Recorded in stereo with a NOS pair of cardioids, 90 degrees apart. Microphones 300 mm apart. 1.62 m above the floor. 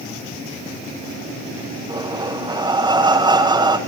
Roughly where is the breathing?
Ahead.